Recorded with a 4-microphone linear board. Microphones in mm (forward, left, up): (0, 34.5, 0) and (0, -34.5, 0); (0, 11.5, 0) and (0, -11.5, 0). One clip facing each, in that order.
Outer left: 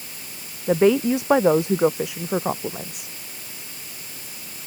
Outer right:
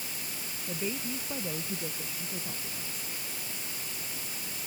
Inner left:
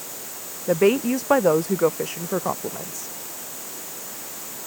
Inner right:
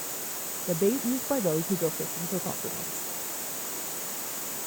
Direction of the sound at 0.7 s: 80° left.